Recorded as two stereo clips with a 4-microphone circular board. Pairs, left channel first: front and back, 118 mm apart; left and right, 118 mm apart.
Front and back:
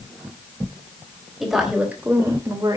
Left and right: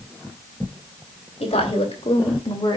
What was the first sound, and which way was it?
A woman speaking, 95° left.